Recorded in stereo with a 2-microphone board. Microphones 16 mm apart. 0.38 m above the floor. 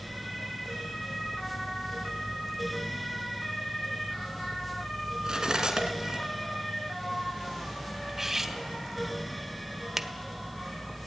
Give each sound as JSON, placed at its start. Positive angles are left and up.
{"t": 5.2, "sound": "cutlery clinking", "side_deg": -50, "distance_m": 3.0}
{"t": 8.1, "sound": "cutlery clinking", "side_deg": -25, "distance_m": 1.6}
{"t": 10.0, "sound": "a finger snap", "side_deg": -25, "distance_m": 1.2}